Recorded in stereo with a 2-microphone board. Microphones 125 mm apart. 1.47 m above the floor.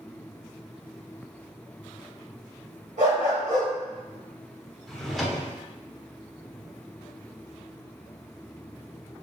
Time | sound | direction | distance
3.0 | a dog barking | 75° right (ahead or behind) | 3.5 m
4.9 | a drawer | centre (ahead or behind) | 1.5 m